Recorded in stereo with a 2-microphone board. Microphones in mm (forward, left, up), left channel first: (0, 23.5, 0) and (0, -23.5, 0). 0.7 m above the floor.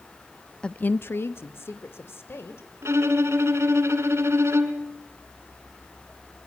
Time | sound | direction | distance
0.6 | a woman speaking | 15° left (ahead or behind) | 0.6 m
2.8 | a violin | 75° right (ahead or behind) | 2.5 m